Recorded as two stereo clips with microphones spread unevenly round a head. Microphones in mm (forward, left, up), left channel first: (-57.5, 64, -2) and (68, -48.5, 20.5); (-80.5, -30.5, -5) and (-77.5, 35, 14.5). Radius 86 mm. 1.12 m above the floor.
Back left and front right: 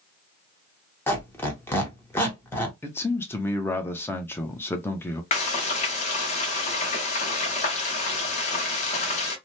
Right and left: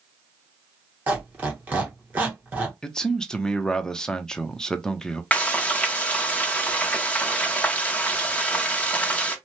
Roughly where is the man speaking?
Behind right.